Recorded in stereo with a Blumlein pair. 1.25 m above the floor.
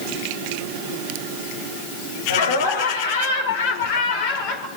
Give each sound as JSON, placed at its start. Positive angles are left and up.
{"t": 2.3, "sound": "laughter", "azimuth_deg": 70, "distance_m": 4.5}